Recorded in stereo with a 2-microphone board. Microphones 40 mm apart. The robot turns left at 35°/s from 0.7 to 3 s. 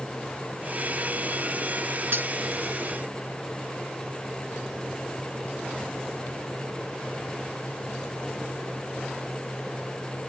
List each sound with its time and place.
2.1 s cutlery clinking: 60° right (ahead or behind), 1.0 m; by 2.3 s 55° right (ahead or behind), 1.0 m